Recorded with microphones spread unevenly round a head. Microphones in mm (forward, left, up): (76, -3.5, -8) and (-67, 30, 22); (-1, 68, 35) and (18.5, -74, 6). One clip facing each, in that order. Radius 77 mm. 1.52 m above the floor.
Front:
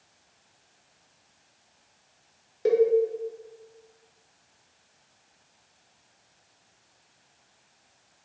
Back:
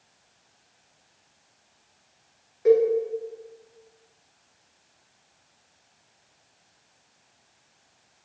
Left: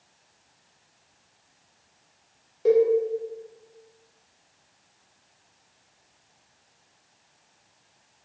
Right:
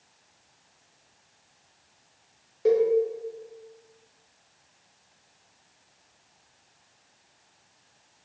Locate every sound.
2.6 s a cowbell: 25° left, 0.6 m